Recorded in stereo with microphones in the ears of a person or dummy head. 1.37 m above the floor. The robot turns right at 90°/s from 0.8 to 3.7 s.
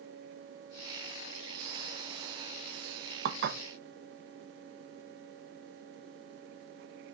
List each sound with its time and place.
3.2 s dishes clattering: 70° right (ahead or behind), 0.9 m; by 3.6 s 50° right (ahead or behind), 0.9 m